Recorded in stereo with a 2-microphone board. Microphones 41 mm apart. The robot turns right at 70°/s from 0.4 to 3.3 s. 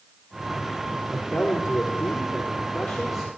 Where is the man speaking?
40° left, 4 m; by 3.3 s 170° right, 4 m.